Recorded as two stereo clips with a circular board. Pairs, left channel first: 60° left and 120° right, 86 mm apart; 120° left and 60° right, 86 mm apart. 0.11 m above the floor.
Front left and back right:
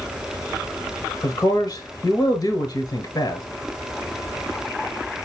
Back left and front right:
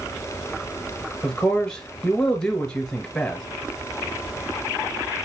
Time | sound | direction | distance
1.2 | a man speaking | 40° left | 1.5 m